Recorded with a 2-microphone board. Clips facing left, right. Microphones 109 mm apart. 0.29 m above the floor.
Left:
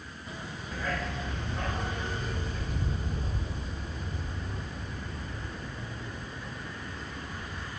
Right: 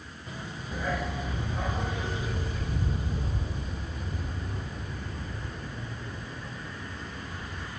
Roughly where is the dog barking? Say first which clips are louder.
Right 2 dB; centre.